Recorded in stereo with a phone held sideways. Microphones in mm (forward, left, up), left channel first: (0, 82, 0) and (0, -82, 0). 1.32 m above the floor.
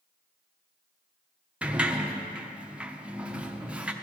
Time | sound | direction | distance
1.6 | a sliding door | 5° right (ahead or behind) | 0.6 m